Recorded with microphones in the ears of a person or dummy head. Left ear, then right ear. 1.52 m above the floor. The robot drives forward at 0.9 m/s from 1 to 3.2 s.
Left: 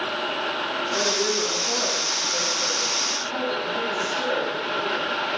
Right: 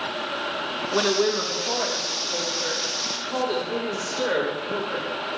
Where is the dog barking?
No dog barking in this recording.